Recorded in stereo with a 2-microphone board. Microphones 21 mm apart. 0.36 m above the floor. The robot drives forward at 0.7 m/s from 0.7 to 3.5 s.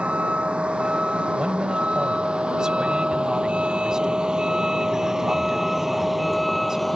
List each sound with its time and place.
0.0 s a vehicle: 70° right (ahead or behind); by 7.0 s centre (ahead or behind)
1.4 s a man speaking: 45° right (ahead or behind); by 6.9 s 25° right (ahead or behind)